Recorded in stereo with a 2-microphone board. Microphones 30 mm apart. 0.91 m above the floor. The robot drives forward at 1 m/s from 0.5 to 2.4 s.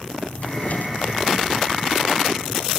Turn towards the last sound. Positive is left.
turn(degrees=85)